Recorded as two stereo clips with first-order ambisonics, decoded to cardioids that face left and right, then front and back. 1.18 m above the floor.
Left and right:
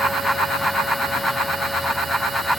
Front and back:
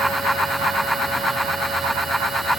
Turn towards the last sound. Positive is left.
No sound to turn to.